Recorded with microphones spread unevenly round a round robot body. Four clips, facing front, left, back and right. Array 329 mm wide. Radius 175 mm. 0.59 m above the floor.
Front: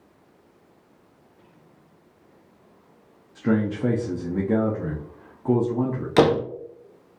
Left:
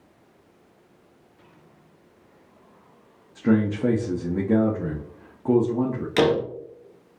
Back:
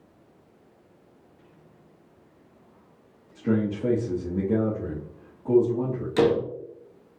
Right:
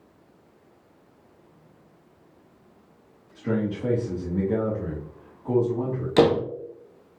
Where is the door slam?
45° right, 0.5 m.